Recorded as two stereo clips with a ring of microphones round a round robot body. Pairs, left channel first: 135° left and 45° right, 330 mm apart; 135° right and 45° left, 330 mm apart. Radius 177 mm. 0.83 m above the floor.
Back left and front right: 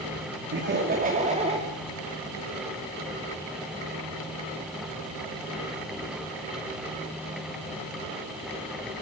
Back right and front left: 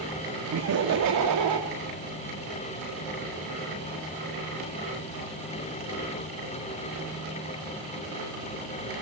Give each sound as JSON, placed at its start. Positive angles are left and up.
{"t": 0.5, "sound": "laughter", "azimuth_deg": 5, "distance_m": 2.0}